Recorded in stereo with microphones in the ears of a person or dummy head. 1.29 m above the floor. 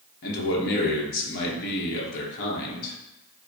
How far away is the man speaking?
About 1.0 m.